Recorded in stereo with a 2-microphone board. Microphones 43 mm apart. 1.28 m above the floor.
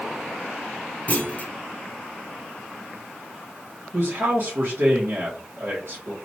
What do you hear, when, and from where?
1.1 s a clunk: 35° left (ahead or behind), 0.6 m
3.9 s a man speaking: 65° right (ahead or behind), 1.2 m